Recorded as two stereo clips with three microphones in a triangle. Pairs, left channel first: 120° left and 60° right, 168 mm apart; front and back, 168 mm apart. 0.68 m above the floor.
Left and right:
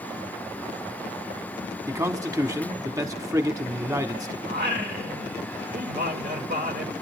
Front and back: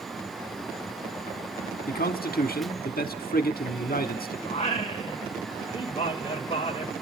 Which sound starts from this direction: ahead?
A man speaking, at 1.9 s.